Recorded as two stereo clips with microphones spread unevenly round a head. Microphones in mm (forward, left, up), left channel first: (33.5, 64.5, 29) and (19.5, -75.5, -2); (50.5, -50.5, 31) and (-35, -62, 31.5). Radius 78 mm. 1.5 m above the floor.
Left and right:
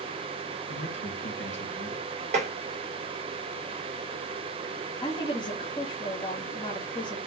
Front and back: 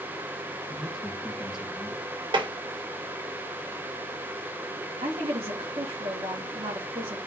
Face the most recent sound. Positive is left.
turn(degrees=145)